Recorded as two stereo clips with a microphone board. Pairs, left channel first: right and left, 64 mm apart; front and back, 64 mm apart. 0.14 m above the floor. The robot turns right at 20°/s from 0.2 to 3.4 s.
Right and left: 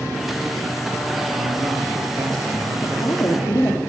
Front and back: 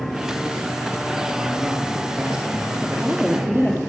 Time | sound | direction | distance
1.3 | a man speaking | 85° left | 5 m
2.8 | a woman speaking | 100° right | 2.5 m